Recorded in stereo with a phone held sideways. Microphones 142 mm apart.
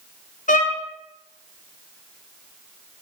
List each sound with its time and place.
0.5 s a violin: 65° left (ahead or behind), 0.5 m